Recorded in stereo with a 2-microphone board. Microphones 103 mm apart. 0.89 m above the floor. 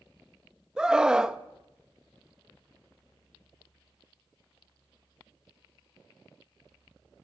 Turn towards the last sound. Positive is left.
turn(degrees=-5)  # may be behind; listen again after turning